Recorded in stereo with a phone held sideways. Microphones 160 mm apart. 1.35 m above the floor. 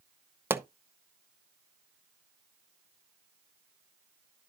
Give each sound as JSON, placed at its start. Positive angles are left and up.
{"t": 0.5, "sound": "a pop", "side_deg": -15, "distance_m": 0.7}